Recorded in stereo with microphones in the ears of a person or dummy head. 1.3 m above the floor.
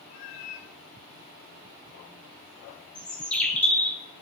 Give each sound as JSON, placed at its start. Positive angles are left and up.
{"t": 0.1, "sound": "a cat meowing", "side_deg": 45, "distance_m": 1.5}
{"t": 3.0, "sound": "a bird", "side_deg": 5, "distance_m": 2.0}